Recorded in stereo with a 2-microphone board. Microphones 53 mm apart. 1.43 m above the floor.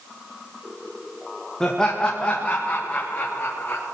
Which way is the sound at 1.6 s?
10° left (ahead or behind).